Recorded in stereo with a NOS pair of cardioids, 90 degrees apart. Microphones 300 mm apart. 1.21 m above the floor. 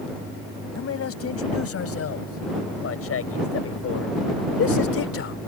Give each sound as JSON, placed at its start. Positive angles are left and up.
{"t": 0.8, "sound": "a man speaking", "azimuth_deg": 50}